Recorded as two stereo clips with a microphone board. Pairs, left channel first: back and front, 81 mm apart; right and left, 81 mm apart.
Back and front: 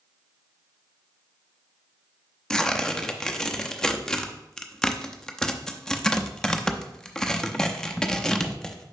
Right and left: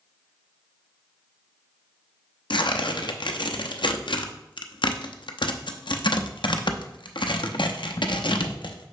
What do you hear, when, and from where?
2.5 s tearing paper: 100° right, 0.6 m